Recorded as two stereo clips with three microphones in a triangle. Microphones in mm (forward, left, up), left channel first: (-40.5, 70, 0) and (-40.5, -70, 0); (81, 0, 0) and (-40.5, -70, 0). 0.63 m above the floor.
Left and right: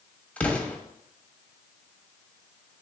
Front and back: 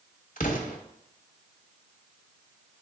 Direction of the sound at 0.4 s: 10° left.